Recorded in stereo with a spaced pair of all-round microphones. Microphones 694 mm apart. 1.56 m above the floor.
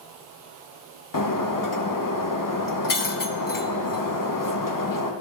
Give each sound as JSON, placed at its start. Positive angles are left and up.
{"t": 1.1, "sound": "breaking glass", "side_deg": 30, "distance_m": 0.7}